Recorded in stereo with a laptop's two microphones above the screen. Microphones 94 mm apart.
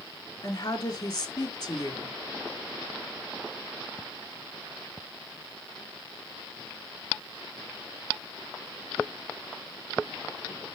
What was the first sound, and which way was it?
A woman speaking, 50° left (ahead or behind).